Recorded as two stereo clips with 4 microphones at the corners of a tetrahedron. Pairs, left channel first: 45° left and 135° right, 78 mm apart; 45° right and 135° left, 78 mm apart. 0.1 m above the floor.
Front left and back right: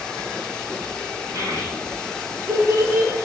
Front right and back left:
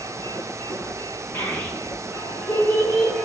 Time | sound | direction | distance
1.3 | a child speaking | 105° right | 4 m